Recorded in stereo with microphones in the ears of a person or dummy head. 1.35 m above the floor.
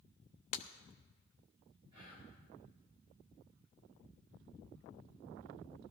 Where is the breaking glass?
45° left (ahead or behind), 0.7 m.